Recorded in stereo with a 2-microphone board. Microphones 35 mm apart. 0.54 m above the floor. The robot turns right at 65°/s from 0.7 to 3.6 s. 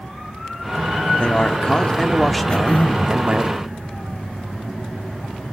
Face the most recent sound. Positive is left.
turn(degrees=105)